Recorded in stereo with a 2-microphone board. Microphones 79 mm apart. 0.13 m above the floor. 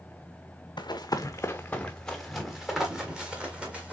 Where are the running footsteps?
70° left (ahead or behind), 0.6 m; by 3.9 s 15° right (ahead or behind), 2.0 m.